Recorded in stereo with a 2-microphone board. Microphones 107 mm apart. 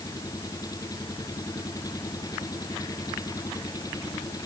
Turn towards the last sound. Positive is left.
turn(degrees=30)  # may be behind; listen again after turning